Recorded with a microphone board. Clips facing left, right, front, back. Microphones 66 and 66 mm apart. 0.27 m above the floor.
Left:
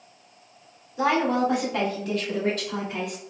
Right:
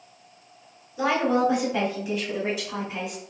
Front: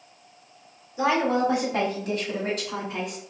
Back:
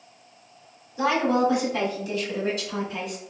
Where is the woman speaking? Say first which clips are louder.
Even, back 1 dB; 5° right, 1.5 m; by 3.2 s 10° right, 3 m.